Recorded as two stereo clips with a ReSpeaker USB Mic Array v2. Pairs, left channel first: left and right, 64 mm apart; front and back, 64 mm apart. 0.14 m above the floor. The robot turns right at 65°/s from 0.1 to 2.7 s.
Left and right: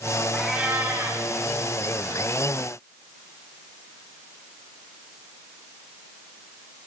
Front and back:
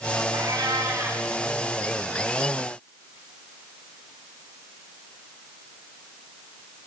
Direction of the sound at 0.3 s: Straight behind.